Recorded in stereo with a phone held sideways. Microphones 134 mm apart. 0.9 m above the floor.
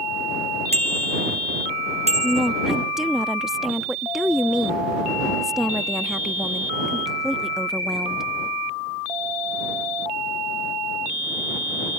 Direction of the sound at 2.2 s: 5° right (ahead or behind).